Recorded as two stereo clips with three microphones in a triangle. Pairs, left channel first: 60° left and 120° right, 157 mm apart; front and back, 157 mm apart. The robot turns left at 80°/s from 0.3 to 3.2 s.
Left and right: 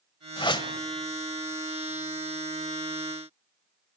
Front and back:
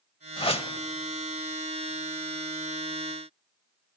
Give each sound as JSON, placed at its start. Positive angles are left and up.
{"t": 0.4, "sound": "a whoosh", "azimuth_deg": 30, "distance_m": 1.1}